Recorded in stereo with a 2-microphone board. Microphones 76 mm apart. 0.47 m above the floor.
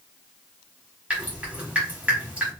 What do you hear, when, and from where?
1.1 s dripping: 15° right (ahead or behind), 1.1 m